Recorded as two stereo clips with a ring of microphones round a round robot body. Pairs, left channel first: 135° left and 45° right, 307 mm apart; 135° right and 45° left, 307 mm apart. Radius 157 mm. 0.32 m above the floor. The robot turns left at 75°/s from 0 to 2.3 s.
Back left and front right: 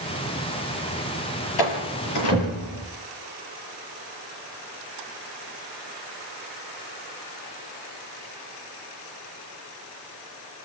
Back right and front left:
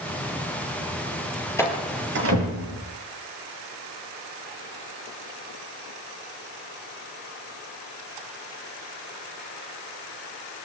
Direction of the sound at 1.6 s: 145° left.